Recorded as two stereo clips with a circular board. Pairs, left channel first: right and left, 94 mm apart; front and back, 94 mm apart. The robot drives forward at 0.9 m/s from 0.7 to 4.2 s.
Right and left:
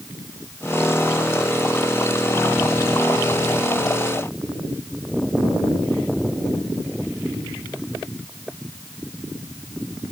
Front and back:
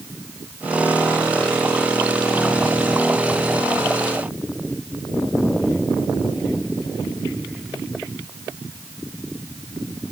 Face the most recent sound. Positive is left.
No sound to turn to.